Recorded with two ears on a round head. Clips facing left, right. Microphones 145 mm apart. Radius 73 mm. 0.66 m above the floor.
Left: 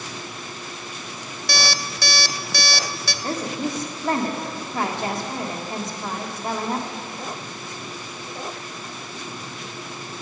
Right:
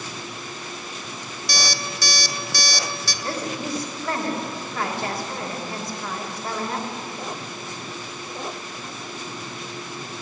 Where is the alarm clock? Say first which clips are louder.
Left 2 dB; 50° left (ahead or behind), 0.5 m.